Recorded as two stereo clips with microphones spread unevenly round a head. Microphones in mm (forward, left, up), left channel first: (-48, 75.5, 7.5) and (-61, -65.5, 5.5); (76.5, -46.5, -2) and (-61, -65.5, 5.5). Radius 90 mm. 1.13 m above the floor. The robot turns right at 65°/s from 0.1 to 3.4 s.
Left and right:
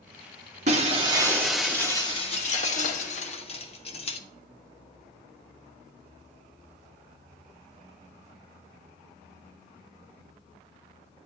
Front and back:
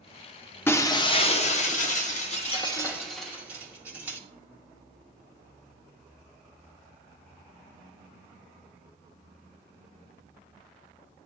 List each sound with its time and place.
0.7 s breaking glass: 65° right, 0.9 m; by 4.2 s 115° left, 0.9 m